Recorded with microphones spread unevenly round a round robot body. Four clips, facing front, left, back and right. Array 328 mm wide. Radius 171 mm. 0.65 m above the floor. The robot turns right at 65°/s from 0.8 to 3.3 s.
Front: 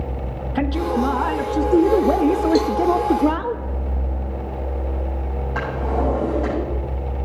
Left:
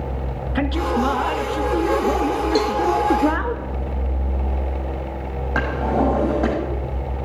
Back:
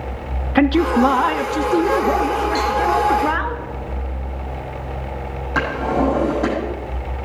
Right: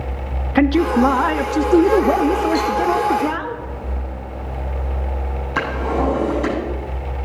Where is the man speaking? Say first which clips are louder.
Right 7 dB, back 6 dB; 135° right, 0.7 m; by 3.5 s 30° left, 0.7 m.